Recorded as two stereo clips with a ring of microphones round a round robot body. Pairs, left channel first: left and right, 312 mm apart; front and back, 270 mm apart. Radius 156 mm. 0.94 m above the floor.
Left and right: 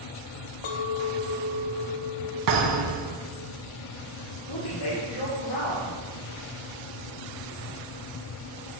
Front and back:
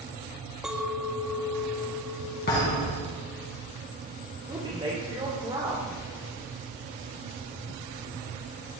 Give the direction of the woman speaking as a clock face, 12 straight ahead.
8 o'clock.